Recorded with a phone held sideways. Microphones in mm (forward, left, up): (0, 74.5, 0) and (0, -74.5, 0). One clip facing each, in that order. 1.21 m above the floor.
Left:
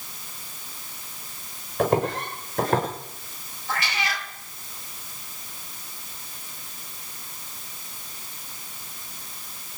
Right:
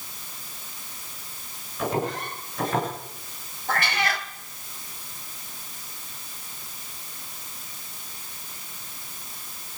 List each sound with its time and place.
1.8 s footsteps: 55° left (ahead or behind), 6.5 m; by 2.9 s 50° left (ahead or behind), 7.5 m
3.7 s a cat meowing: 55° right (ahead or behind), 2 m